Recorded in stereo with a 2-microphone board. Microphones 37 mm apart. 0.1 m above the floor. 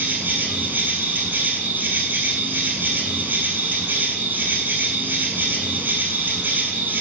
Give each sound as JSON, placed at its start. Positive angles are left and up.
{"t": 0.0, "sound": "an insect", "side_deg": -60, "distance_m": 1.5}